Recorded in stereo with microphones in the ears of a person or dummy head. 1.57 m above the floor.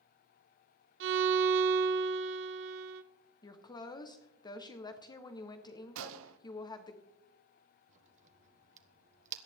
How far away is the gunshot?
About 0.7 m.